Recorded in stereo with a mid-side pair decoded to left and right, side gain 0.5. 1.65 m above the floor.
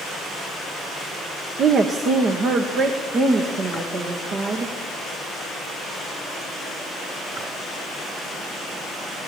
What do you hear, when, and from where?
1.6 s a woman speaking: 50° right, 1.4 m; by 4.8 s 60° right, 3 m